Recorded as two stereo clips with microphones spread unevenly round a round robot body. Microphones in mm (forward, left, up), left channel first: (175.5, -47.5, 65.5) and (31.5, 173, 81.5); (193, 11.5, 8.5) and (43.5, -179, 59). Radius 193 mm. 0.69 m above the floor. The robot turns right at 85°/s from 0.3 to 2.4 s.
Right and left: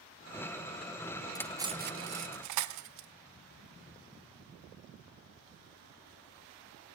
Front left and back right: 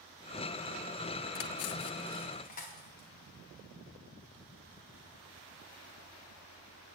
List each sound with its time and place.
1.4 s cutlery clinking: 20° left, 0.5 m; by 3.1 s 110° left, 0.5 m